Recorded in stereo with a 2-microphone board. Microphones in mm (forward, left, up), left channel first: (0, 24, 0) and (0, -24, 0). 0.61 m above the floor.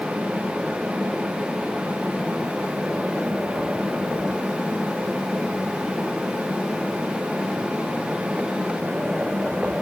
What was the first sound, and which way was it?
Only background noise.